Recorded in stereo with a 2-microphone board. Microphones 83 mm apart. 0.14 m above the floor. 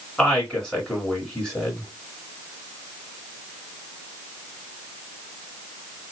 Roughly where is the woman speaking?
Centre.